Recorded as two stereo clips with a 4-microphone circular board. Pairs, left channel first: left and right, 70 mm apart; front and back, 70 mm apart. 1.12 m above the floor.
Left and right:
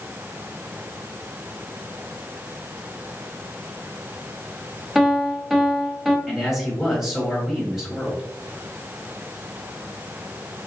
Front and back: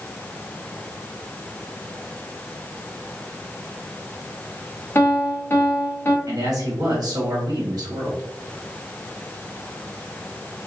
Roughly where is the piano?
Ahead.